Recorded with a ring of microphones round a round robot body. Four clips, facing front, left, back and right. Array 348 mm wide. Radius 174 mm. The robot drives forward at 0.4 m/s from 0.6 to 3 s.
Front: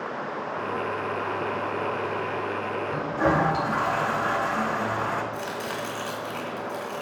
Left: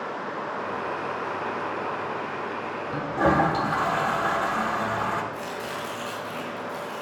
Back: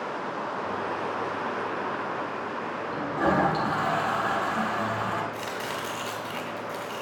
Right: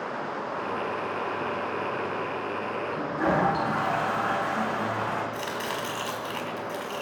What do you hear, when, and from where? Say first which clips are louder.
2.9 s a toilet flushing: left 4 dB, front 1 dB; 80° left, 1.8 m; by 5.2 s 85° left, 1.8 m
5.3 s chopping: right 1 dB, front 1 dB; 115° right, 2 m